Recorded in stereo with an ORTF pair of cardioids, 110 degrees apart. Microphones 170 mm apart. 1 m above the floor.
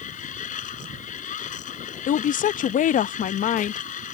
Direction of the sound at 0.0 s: 50° left.